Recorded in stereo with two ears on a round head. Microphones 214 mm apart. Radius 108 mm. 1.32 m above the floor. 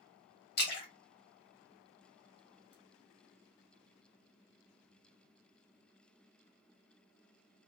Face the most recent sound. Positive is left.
turn(degrees=45)  # may be behind; listen again after turning